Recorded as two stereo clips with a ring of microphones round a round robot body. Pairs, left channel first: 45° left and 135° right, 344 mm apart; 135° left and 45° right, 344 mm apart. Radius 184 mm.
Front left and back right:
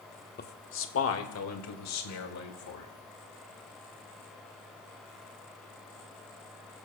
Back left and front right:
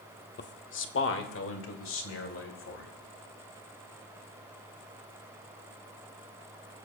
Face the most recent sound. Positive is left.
turn(degrees=85)